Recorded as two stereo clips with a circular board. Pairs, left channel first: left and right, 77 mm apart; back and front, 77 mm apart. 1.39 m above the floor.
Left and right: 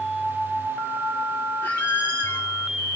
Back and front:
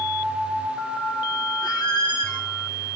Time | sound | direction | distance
1.6 | a squeak | 155° left | 3 m